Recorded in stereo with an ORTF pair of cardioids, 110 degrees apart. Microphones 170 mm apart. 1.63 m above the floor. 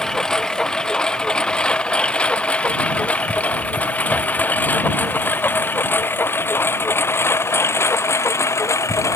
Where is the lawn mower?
5° left; by 9.2 s 15° left.